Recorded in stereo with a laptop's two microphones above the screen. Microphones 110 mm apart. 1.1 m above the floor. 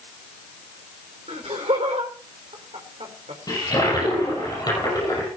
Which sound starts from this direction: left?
A toilet flushing, at 3.5 s.